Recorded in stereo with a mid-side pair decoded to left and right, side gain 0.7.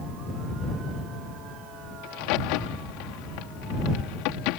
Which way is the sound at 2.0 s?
70° left.